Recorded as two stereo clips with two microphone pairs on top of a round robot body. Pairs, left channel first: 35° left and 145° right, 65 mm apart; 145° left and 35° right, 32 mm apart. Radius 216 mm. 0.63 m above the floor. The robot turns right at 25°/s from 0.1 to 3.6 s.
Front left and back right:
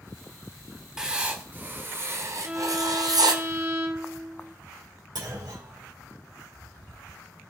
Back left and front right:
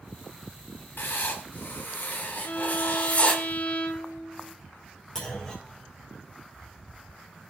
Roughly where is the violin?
Behind left.